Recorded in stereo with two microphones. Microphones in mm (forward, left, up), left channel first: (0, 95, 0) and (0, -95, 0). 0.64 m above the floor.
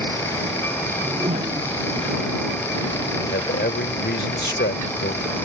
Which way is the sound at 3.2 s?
75° left (ahead or behind).